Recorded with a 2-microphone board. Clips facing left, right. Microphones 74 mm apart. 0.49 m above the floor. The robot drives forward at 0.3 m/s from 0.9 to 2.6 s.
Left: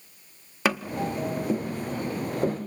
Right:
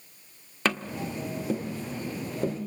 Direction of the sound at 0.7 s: 10° left (ahead or behind).